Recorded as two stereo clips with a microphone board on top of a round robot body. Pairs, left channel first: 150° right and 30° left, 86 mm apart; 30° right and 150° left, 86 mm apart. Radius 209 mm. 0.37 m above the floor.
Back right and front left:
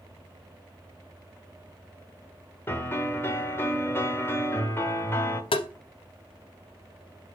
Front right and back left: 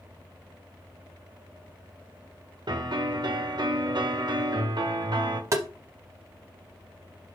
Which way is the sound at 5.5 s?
155° right.